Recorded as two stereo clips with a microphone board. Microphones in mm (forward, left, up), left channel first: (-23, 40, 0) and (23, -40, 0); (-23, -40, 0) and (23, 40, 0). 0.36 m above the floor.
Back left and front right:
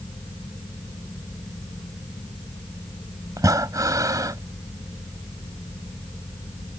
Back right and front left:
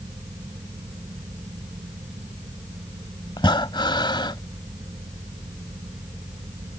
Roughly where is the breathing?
Right.